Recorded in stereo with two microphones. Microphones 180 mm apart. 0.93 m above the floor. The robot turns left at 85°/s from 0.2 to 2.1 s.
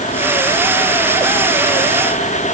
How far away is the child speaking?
No child speaking in this recording.